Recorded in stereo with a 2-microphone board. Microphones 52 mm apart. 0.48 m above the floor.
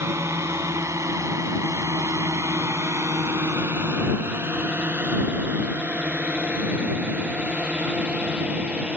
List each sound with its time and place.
0.0 s a drone: 60° right (ahead or behind); by 9.0 s 20° right (ahead or behind)